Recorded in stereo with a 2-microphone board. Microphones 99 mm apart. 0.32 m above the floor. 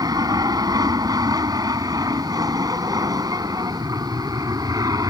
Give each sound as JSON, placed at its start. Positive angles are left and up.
{"t": 0.0, "sound": "an aircraft", "side_deg": -40}